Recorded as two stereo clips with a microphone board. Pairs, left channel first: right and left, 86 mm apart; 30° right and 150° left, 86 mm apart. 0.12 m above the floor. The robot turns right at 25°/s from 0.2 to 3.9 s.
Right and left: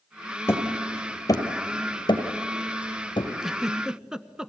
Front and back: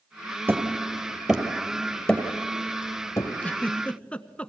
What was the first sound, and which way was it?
Hammering, 145° right.